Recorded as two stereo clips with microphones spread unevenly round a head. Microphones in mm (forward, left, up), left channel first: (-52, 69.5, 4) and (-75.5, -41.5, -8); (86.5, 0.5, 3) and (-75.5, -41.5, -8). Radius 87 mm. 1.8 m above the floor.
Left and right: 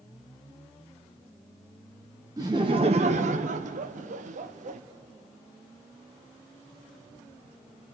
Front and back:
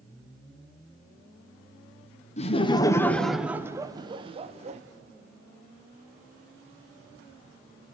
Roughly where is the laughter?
Ahead right.